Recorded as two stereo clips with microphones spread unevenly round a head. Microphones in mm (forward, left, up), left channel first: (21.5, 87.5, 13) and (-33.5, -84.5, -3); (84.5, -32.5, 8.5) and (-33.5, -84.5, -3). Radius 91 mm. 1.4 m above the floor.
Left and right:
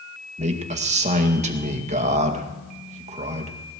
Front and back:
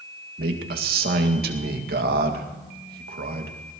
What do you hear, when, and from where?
0.4 s a man speaking: 165° right, 2 m